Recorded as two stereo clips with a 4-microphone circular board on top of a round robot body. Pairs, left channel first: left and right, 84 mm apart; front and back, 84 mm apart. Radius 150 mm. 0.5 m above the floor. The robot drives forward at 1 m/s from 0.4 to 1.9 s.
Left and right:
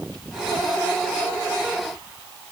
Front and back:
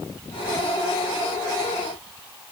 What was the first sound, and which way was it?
Only background noise.